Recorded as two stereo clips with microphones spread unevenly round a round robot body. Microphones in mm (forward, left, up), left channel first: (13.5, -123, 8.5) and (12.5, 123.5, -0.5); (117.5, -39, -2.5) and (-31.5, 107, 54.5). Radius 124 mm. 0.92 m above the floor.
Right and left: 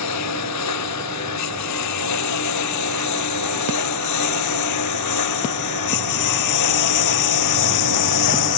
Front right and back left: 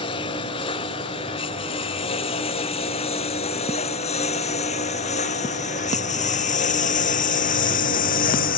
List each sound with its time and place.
0.0 s a lawn mower: 115° right; by 8.6 s 100° right